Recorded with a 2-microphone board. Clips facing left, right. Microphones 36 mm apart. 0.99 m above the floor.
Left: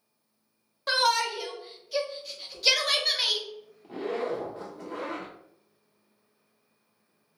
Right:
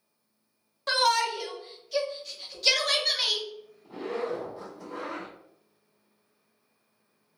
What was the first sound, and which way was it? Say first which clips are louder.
A shout: even; 5° left (ahead or behind).